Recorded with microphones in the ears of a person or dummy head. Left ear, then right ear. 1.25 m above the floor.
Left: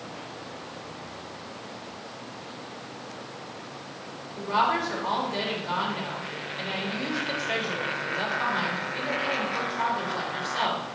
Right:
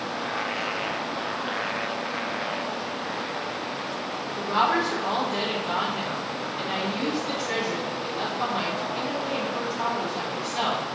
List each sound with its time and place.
4.4 s a woman speaking: 10° left (ahead or behind), 3 m